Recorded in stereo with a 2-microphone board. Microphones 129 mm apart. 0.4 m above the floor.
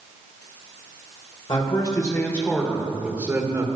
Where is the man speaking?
40° left (ahead or behind), 1.6 m; by 3.7 s 30° right (ahead or behind), 1.4 m.